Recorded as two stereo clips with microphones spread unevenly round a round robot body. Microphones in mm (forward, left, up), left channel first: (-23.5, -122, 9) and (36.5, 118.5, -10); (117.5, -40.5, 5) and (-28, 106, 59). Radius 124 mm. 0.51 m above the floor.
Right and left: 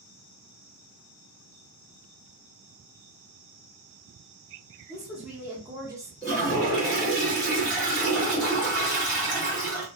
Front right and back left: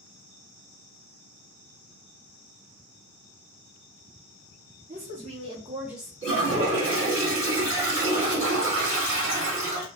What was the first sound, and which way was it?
A woman speaking, 155° left.